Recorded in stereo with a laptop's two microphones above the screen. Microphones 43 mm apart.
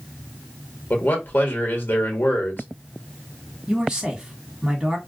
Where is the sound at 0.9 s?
45° left (ahead or behind), 1.0 m.